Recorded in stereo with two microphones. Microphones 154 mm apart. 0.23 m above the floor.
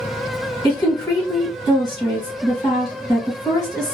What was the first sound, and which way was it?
A woman speaking, 25° left (ahead or behind).